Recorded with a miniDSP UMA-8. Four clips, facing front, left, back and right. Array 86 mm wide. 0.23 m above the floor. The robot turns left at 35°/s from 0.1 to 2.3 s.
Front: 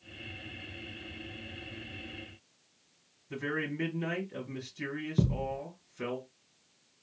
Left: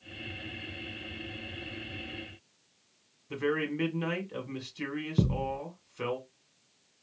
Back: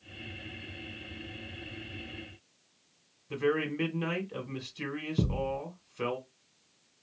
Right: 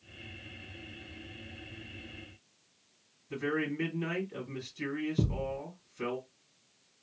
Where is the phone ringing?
I don't hear a phone ringing.